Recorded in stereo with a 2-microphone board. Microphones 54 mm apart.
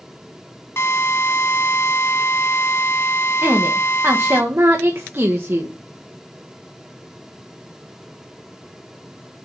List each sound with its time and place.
0.8 s a drill: 50° left (ahead or behind), 1.5 m
3.4 s a woman speaking: 50° right (ahead or behind), 1.6 m